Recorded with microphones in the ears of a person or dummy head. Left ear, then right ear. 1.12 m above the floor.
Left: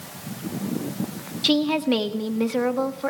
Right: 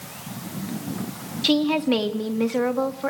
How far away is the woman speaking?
About 1.6 m.